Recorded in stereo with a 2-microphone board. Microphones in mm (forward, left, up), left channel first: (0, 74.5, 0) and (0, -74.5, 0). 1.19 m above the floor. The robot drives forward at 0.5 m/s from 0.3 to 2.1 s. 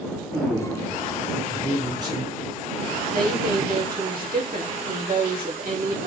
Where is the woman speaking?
70° right (ahead or behind), 2 m.